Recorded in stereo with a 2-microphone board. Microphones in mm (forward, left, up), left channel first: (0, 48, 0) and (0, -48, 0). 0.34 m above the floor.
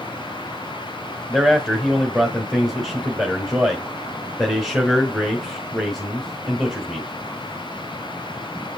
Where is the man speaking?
Centre (ahead or behind), 1.5 m.